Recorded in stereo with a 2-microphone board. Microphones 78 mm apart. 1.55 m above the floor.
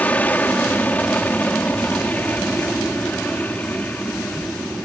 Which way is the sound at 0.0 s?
20° left (ahead or behind).